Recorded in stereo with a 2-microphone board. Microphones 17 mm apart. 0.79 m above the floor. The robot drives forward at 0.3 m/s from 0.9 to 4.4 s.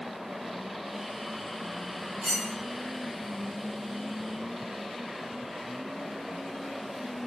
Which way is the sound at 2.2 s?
60° right (ahead or behind).